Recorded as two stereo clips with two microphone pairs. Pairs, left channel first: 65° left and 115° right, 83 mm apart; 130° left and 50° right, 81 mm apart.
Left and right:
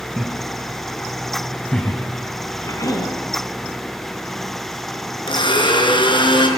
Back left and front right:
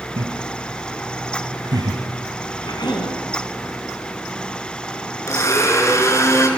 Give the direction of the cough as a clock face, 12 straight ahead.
8 o'clock.